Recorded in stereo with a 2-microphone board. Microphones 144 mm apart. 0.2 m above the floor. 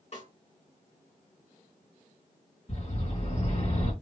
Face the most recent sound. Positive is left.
turn(degrees=50)  # may be behind; listen again after turning